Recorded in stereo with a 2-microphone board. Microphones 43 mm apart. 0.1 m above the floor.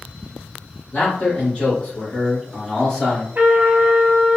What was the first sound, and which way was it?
A man speaking, 30° left (ahead or behind).